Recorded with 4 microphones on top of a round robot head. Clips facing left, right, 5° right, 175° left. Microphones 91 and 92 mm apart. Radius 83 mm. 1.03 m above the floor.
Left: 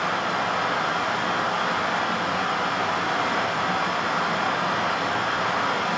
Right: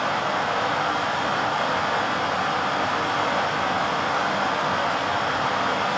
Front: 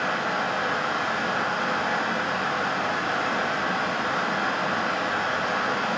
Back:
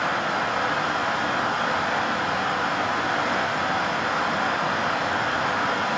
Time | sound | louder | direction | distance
0.0 | running water | right 1 dB, back 1 dB | 135° right | 1.3 m